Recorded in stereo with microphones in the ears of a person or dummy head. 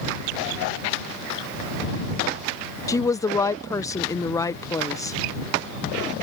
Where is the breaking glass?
I don't hear breaking glass.